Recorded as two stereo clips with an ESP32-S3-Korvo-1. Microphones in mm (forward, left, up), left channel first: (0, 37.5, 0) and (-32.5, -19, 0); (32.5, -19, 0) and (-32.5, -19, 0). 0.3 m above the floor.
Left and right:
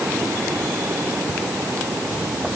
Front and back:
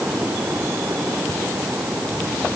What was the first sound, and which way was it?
Only background noise.